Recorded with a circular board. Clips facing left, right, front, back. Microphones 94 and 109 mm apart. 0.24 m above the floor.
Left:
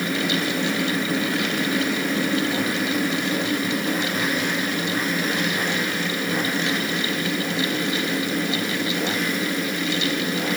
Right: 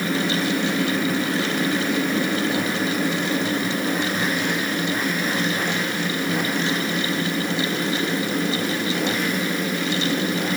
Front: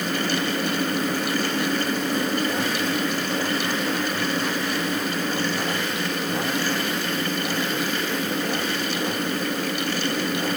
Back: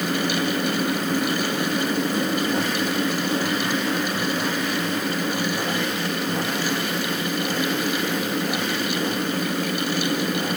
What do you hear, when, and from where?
Only background noise.